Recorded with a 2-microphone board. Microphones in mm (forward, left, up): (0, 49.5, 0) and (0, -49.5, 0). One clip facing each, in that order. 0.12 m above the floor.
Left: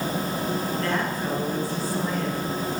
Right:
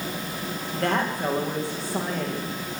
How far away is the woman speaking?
About 8.5 m.